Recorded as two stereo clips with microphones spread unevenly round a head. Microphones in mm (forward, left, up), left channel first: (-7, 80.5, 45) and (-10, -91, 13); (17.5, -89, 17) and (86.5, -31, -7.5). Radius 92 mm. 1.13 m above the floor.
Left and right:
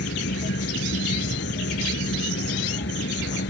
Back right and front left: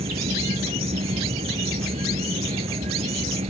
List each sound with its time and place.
0.0 s an insect: 60° left